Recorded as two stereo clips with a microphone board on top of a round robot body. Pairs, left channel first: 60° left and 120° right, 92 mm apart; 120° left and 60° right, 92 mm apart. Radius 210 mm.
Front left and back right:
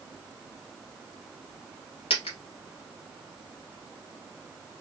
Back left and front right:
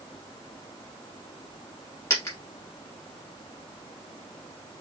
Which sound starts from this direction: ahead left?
A dropped coin, at 2.1 s.